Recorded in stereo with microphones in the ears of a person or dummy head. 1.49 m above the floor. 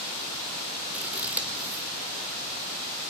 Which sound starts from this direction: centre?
Scissors, at 0.9 s.